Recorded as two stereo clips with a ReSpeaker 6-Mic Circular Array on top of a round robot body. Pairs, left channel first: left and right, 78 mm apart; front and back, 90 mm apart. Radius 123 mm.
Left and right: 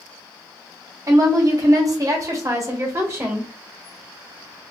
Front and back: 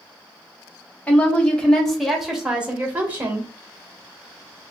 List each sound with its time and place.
1.1 s a woman speaking: 65° right, 1.6 m; by 3.5 s 135° right, 1.4 m